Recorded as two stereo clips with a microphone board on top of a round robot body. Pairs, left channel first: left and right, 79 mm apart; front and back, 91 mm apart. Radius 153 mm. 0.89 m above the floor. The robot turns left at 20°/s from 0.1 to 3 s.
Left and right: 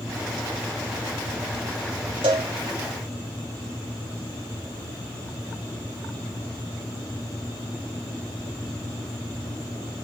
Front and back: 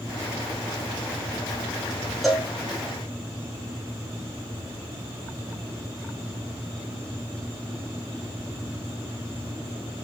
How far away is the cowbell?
About 0.7 m.